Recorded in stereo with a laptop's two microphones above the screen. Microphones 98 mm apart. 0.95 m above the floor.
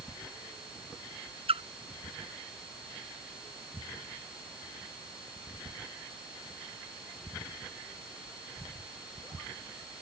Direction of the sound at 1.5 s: 80° right.